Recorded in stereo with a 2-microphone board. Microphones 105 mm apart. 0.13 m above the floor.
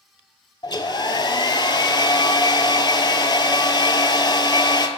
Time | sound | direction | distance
0.6 | a hair dryer | 45° left (ahead or behind) | 0.5 m